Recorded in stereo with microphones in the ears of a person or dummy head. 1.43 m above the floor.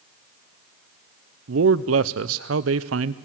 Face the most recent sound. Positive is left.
turn(degrees=-65)  # may be behind; listen again after turning